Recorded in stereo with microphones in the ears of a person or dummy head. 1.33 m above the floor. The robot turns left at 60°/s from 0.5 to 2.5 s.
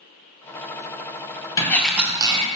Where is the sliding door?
20° left, 0.5 m; by 2.5 s 35° right, 0.5 m.